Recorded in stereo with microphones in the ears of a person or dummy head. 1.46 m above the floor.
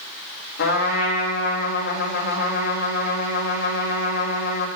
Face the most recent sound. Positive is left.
turn(degrees=60)  # may be behind; listen again after turning